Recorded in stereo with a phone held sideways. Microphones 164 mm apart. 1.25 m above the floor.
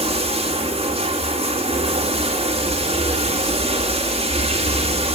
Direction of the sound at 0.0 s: 35° right (ahead or behind).